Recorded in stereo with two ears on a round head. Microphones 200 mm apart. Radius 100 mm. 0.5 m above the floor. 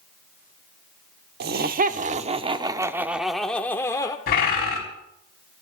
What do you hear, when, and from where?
1.4 s laughter: 45° right (ahead or behind), 1.1 m; by 4.2 s 15° left (ahead or behind), 1.2 m
4.3 s a bird: 45° left (ahead or behind), 4.5 m